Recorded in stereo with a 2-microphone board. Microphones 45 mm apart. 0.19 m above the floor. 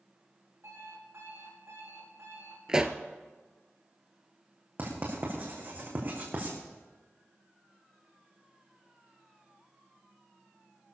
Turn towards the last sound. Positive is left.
turn(degrees=-45)  # may be behind; listen again after turning